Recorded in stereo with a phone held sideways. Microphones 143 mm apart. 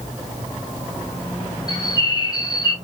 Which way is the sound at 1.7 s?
30° left (ahead or behind).